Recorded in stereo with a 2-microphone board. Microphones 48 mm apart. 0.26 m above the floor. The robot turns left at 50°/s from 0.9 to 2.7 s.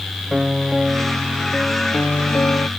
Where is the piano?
170° right; by 2.7 s 100° left.